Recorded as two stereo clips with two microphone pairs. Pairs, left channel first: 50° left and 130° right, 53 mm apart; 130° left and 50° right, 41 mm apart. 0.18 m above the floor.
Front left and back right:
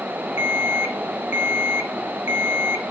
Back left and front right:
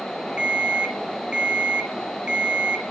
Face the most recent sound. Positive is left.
turn(degrees=-105)